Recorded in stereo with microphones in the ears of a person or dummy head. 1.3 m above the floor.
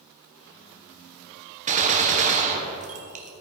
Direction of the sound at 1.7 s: 40° right (ahead or behind).